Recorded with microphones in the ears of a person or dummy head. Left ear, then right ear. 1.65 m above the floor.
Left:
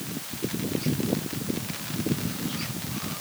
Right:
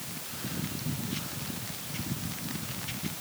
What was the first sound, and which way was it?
Only background noise.